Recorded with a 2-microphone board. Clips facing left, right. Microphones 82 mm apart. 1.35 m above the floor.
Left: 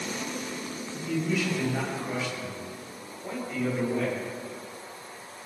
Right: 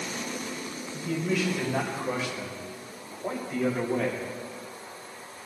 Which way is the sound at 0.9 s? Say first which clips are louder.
Even; 85° right.